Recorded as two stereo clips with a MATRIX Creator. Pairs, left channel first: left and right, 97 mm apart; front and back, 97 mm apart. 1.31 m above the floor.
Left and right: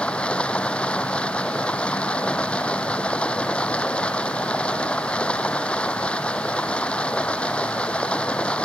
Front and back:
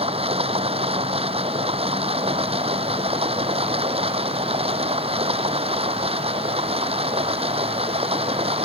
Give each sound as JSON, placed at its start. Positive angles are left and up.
{"t": 0.0, "sound": "running water", "azimuth_deg": 170}